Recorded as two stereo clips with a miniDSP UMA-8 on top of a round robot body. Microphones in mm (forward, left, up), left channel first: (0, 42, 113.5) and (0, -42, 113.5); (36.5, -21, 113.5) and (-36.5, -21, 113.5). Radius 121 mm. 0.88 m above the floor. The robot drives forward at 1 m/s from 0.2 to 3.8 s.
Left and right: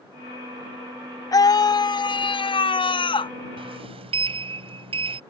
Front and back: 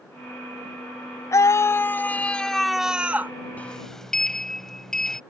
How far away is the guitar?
No guitar in this recording.